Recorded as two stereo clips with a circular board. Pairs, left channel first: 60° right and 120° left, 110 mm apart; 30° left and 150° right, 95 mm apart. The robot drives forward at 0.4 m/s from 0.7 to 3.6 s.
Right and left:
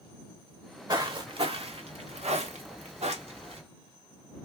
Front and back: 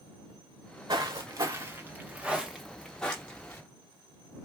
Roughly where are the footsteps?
Behind.